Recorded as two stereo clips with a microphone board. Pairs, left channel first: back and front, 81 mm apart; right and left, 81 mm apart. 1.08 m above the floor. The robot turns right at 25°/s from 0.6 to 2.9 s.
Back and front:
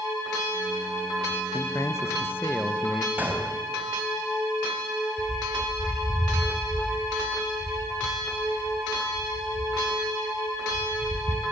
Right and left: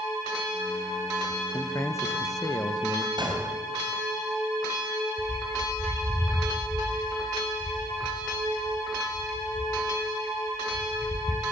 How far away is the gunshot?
About 3.5 m.